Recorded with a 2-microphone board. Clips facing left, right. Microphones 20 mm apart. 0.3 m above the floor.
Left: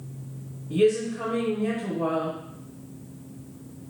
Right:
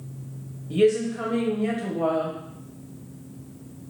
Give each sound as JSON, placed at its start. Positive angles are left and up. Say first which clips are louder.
{"t": 0.7, "sound": "a woman speaking", "louder": "right 1 dB", "side_deg": -35, "distance_m": 1.0}